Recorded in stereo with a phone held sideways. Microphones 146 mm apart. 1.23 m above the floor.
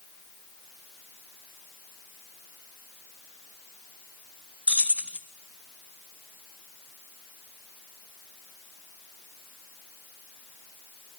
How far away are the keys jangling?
About 1.5 m.